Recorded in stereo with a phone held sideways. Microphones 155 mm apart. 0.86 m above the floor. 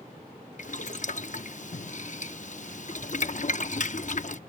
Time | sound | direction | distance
0.6 | boiling | 50° left (ahead or behind) | ?